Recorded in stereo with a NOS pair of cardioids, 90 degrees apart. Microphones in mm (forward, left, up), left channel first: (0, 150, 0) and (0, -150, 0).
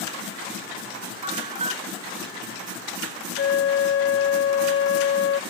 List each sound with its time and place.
1.2 s a bell: 20° right
3.4 s a flute: 45° left